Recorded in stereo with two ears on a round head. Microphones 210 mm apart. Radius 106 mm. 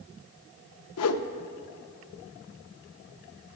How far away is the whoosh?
About 0.6 m.